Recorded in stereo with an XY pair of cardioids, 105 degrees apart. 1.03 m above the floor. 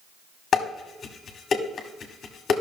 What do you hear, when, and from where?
0.5 s dishes clattering: 50° left, 1.4 m